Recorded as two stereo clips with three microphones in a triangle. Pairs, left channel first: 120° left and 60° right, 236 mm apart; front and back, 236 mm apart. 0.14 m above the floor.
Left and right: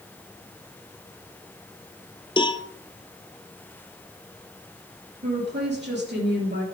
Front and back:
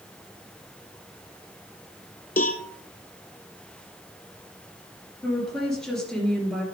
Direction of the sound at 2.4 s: 50° left.